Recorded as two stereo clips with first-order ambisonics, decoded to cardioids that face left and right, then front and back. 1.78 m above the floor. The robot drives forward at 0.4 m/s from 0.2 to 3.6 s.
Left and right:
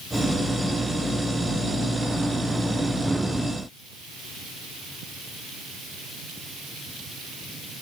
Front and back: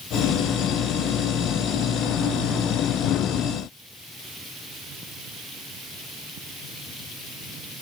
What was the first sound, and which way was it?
Only background noise.